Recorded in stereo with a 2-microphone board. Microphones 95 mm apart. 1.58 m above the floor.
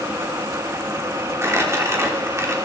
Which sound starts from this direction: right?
Crumpling, at 1.4 s.